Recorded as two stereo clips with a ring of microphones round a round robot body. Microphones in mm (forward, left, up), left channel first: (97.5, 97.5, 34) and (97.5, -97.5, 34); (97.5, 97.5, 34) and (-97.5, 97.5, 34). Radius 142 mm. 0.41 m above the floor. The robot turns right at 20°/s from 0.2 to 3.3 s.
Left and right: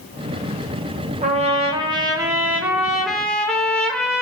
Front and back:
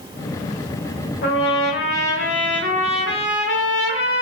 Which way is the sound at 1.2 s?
35° right.